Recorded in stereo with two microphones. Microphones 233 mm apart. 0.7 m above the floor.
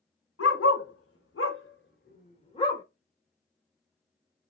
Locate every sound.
0.4 s a dog barking: 85° left, 1.4 m; by 2.8 s 15° left (ahead or behind), 1.1 m